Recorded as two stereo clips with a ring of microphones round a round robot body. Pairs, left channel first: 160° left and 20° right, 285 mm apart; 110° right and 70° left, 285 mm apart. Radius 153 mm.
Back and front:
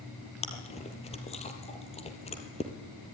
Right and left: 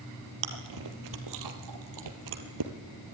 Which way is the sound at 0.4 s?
90° left.